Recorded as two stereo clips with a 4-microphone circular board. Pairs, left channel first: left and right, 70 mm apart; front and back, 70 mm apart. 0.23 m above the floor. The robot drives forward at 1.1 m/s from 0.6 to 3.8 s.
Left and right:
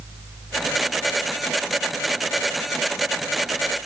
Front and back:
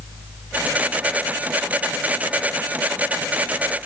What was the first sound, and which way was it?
Only background noise.